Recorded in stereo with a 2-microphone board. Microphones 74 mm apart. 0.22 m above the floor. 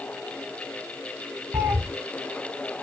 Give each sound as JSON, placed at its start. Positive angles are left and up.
{"t": 1.5, "sound": "a cat meowing", "side_deg": -25, "distance_m": 1.4}